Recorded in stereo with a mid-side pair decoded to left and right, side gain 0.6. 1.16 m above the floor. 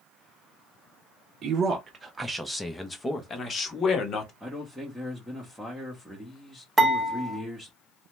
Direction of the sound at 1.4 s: 45° right.